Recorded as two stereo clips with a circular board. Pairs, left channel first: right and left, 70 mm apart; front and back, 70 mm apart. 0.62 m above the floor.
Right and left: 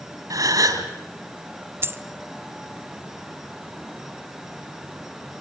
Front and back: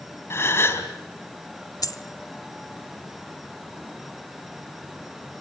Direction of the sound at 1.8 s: 30° left.